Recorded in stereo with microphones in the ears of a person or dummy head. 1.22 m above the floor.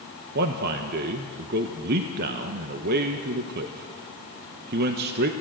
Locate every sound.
0.3 s a man speaking: 50° right (ahead or behind), 1.1 m